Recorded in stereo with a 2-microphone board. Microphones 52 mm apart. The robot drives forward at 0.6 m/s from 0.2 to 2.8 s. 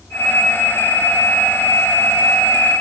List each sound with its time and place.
Only background noise.